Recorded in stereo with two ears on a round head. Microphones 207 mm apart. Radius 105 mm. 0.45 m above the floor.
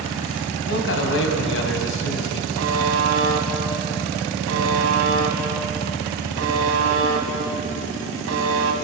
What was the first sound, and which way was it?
A man speaking, 60° left (ahead or behind).